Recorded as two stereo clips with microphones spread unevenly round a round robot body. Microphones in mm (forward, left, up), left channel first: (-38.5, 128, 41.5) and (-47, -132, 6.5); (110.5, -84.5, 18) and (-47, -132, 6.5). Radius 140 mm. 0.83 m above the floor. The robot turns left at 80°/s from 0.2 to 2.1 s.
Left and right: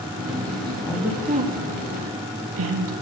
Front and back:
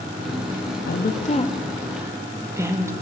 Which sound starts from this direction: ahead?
A woman speaking, at 0.9 s.